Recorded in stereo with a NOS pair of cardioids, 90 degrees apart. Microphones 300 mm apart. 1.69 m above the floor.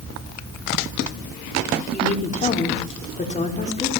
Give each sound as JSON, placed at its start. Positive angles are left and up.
{"t": 1.9, "sound": "a woman speaking", "azimuth_deg": 25, "distance_m": 5.0}